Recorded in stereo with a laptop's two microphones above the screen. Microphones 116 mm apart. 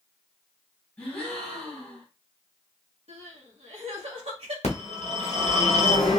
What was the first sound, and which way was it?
A gasp, 10° left (ahead or behind).